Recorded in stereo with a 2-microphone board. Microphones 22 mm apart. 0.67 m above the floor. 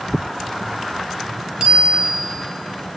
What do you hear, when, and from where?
1.6 s a bicycle bell: 45° right (ahead or behind), 3.5 m